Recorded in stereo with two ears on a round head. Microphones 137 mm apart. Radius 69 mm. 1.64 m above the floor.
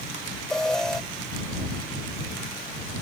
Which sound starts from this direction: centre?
An alarm, at 0.5 s.